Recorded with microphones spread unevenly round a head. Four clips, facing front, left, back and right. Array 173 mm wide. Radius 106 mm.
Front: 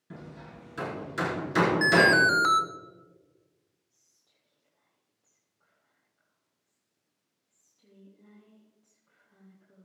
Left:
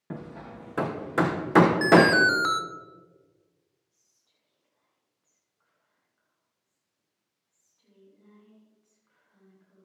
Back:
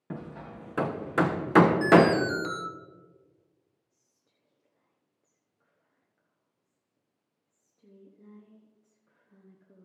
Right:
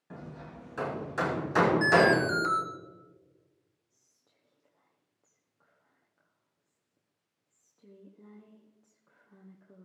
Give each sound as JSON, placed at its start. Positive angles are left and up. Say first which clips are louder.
{"t": 0.1, "sound": "hammering", "louder": "left 5 dB, back 5 dB", "azimuth_deg": 130, "distance_m": 1.0}
{"t": 1.8, "sound": "an alarm", "louder": "left 5 dB, back 2 dB", "azimuth_deg": 25, "distance_m": 1.2}
{"t": 3.9, "sound": "whispering", "louder": "right 4 dB, back 2 dB", "azimuth_deg": -130, "distance_m": 0.9}